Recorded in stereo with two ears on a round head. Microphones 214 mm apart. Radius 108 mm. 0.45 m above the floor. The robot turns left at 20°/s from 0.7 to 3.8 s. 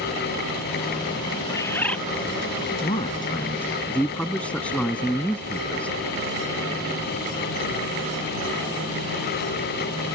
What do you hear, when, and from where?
1.5 s a bird: 15° left (ahead or behind); by 2.0 s 5° left (ahead or behind)
2.8 s a man speaking: 25° left (ahead or behind); by 6.0 s 5° left (ahead or behind)